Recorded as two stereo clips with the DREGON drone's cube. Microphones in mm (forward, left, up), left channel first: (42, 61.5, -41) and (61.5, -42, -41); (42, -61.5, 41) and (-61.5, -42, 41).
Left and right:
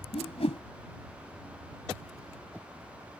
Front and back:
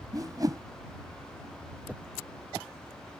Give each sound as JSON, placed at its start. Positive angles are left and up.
{"t": 0.1, "sound": "a whoosh", "azimuth_deg": 120}